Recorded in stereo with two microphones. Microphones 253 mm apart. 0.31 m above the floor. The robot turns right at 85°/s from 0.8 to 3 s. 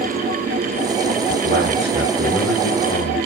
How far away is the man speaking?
About 2 m.